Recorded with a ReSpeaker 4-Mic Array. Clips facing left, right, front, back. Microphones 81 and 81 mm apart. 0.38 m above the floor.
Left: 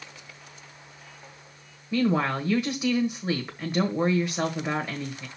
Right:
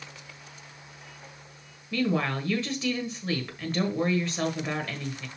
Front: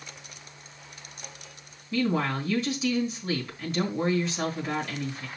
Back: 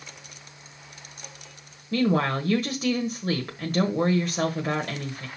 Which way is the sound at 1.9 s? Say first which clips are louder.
Left 3 dB, back 3 dB; 160° left.